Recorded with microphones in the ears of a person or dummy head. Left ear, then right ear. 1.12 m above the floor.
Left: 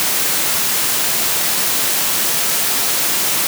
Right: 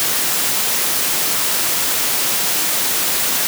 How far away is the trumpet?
No trumpet in this recording.